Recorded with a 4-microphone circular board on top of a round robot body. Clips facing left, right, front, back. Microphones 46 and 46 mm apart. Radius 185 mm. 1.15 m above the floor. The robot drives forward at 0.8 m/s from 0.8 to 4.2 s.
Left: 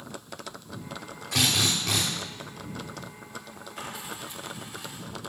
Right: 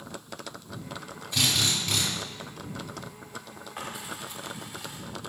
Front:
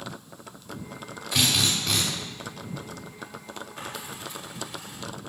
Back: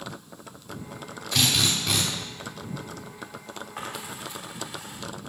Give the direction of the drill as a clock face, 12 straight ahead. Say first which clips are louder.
Left 1 dB, even; 10 o'clock.